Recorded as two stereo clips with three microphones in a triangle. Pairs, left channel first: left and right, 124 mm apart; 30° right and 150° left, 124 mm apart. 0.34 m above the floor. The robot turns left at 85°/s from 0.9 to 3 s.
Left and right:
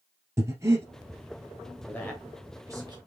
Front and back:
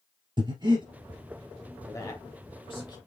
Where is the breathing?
155° right, 1.8 m.